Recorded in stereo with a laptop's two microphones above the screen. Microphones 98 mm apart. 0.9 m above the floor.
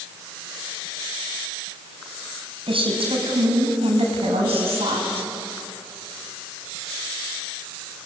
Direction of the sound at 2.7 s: 70° right (ahead or behind).